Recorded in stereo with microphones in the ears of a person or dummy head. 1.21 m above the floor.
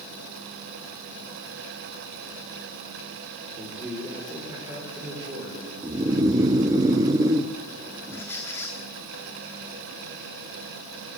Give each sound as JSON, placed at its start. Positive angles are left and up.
{"t": 3.6, "sound": "a man speaking", "side_deg": 0, "distance_m": 3.0}
{"t": 5.8, "sound": "snoring", "side_deg": -15, "distance_m": 0.6}
{"t": 8.1, "sound": "a squeak", "side_deg": 10, "distance_m": 1.2}